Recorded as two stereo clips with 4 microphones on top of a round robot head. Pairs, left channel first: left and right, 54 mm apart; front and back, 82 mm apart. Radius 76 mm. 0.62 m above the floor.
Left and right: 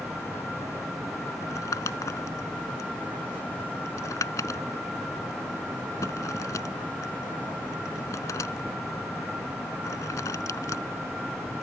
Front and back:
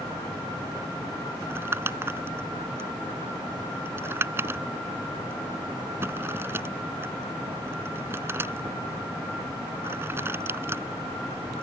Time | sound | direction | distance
1.4 | crumpling | 120° left | ?